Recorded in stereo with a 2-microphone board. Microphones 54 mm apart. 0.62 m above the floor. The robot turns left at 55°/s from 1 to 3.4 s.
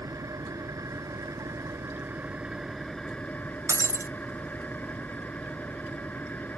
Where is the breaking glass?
70° right (ahead or behind).